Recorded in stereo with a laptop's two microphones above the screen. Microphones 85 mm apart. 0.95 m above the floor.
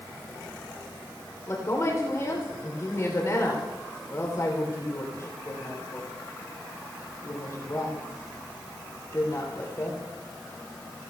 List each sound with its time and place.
1.5 s a woman speaking: 40° left (ahead or behind), 3.5 m